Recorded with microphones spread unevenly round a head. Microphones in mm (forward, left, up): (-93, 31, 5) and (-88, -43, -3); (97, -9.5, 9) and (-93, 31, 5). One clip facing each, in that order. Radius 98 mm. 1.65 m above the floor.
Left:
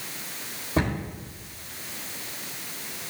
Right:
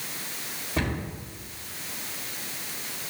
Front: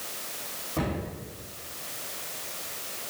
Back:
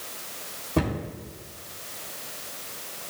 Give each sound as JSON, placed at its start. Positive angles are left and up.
{"t": 0.8, "sound": "a cupboard door", "azimuth_deg": 150, "distance_m": 3.5}